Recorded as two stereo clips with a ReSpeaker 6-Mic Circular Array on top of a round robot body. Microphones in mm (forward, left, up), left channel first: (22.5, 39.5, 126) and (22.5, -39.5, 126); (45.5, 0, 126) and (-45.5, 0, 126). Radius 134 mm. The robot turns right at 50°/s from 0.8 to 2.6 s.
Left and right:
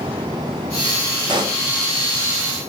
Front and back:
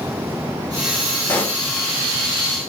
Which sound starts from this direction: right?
A pop, at 1.3 s.